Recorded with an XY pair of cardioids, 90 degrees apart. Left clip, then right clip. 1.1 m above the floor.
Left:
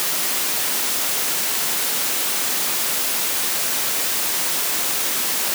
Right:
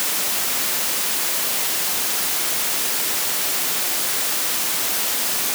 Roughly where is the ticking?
No ticking in this recording.